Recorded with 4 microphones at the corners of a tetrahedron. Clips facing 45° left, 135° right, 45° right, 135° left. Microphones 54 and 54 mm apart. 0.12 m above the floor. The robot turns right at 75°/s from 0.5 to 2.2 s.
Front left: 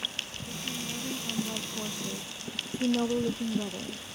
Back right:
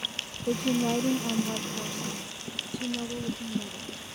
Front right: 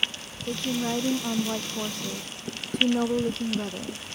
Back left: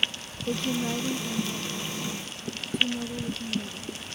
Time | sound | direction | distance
0.5 | a woman speaking | 140° right | ?